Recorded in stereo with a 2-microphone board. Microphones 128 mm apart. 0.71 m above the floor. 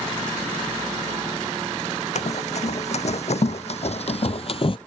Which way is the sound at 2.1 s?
60° left (ahead or behind).